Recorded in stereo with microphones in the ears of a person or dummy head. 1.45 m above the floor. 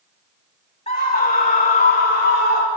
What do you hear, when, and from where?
0.9 s a scream: 30° left (ahead or behind), 3 m; by 2.7 s 45° left (ahead or behind), 4 m